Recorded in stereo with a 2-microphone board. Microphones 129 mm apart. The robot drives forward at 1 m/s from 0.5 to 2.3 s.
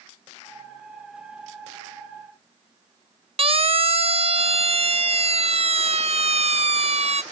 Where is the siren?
50° right (ahead or behind); by 7.2 s 55° right (ahead or behind).